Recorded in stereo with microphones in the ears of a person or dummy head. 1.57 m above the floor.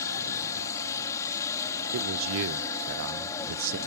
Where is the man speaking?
70° right (ahead or behind).